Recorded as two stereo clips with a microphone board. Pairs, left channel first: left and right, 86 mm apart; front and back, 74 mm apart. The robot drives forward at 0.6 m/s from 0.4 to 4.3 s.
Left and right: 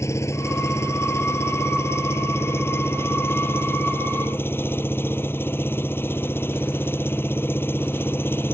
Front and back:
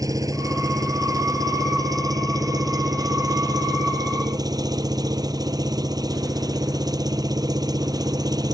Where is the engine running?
145° left; by 8.5 s 155° left.